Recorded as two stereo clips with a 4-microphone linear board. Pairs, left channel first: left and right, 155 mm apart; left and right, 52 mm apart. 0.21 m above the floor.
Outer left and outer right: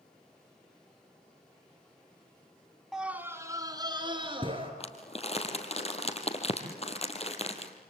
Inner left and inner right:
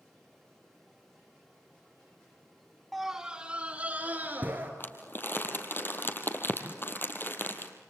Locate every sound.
2.9 s a scream: centre (ahead or behind), 1.3 m; by 4.7 s 35° right (ahead or behind), 3 m
4.8 s crumpling: 40° left (ahead or behind), 2.5 m